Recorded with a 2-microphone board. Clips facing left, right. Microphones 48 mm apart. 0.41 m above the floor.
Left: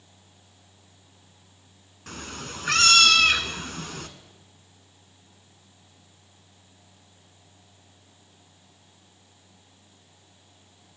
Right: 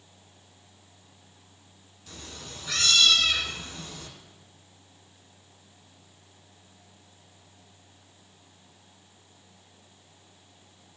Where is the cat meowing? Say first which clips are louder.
Left 7 dB; 65° left (ahead or behind), 1.0 m.